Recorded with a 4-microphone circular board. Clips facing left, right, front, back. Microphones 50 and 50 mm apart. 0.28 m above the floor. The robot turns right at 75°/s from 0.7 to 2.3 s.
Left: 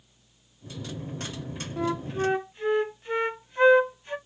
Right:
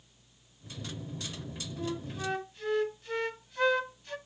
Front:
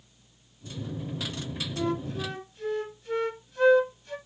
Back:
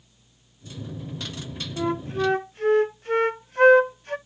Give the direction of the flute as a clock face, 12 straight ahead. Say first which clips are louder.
Left 9 dB, back 5 dB; 8 o'clock.